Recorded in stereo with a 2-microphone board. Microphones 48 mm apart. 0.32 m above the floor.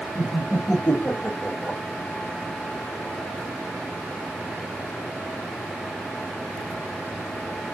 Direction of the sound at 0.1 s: 30° left (ahead or behind).